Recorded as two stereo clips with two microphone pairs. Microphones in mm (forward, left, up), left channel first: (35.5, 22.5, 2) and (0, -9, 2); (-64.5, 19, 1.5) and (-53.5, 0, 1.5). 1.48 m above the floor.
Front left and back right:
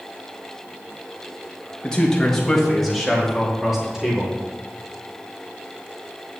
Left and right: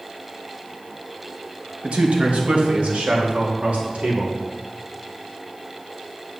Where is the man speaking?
30° right, 1.9 m; by 4.3 s 55° right, 3.5 m.